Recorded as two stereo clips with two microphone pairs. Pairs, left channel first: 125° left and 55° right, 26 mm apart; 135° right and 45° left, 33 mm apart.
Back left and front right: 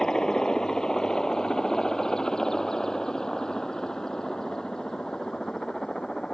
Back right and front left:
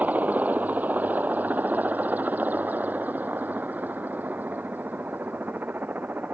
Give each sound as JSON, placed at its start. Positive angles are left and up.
{"t": 0.0, "sound": "a helicopter", "azimuth_deg": 65}